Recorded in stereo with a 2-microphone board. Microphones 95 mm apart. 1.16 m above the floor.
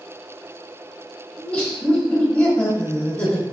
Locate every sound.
1.4 s laughter: 15° left (ahead or behind), 1.4 m